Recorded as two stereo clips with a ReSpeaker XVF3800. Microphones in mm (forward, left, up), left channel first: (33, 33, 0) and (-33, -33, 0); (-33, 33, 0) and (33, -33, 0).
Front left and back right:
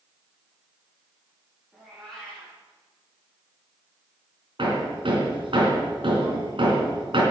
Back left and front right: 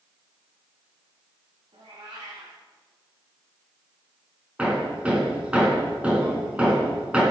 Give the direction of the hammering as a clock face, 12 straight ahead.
4 o'clock.